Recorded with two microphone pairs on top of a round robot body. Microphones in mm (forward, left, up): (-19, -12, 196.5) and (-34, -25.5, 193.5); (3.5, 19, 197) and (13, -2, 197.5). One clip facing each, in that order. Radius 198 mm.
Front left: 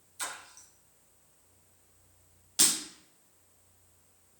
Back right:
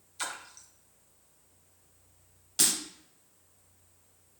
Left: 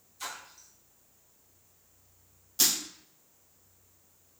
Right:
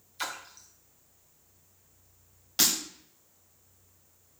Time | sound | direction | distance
0.2 | a splash | 70° right | 1.0 m
2.6 | breaking glass | 40° right | 0.8 m